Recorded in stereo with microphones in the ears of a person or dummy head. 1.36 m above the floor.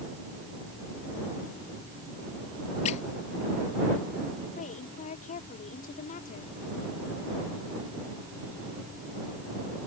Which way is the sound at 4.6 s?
40° left (ahead or behind).